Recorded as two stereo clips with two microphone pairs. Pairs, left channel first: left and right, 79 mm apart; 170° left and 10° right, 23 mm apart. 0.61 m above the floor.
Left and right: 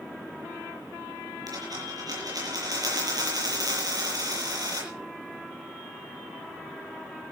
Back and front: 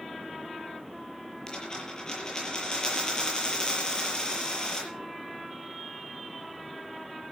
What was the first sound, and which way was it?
A dropped coin, 125° right.